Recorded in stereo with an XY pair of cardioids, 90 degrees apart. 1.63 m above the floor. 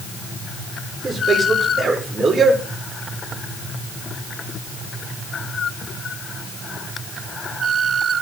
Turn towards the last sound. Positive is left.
turn(degrees=-50)